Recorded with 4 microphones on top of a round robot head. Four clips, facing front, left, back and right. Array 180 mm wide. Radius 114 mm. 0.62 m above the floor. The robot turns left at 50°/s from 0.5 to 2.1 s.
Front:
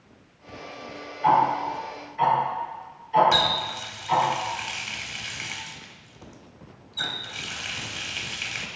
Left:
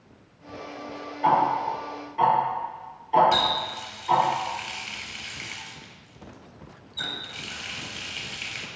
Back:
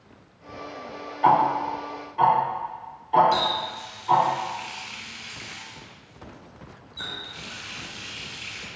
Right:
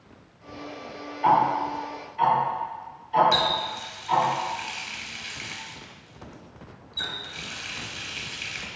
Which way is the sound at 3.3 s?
25° left.